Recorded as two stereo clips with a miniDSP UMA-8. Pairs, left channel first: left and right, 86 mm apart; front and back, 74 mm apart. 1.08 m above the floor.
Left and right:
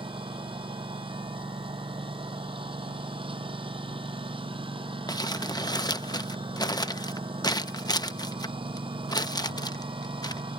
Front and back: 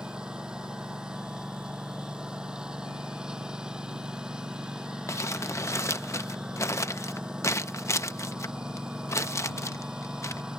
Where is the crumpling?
45° left.